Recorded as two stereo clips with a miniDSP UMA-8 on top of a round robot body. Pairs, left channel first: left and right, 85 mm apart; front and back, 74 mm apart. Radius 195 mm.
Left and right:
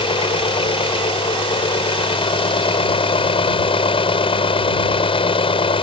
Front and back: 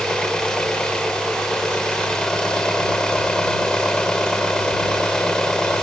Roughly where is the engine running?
Left.